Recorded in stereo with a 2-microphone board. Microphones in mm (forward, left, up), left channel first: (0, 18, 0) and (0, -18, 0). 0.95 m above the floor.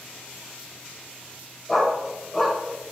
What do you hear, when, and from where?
1.7 s a dog barking: centre (ahead or behind), 1.9 m